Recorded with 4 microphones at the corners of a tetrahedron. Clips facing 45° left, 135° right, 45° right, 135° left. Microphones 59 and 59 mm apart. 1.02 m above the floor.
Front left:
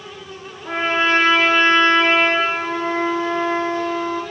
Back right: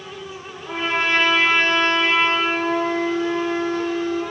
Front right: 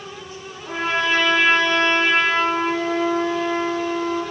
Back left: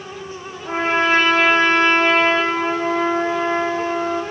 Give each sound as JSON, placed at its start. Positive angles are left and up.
{"t": 0.6, "sound": "a trumpet", "azimuth_deg": 90, "distance_m": 6.5}